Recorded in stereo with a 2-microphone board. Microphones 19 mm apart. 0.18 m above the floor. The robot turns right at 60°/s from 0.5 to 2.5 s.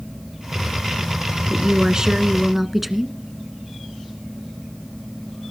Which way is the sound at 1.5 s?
70° right.